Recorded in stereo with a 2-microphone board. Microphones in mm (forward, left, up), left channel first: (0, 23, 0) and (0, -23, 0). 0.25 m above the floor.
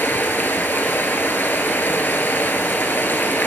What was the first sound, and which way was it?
Running water, 50° left (ahead or behind).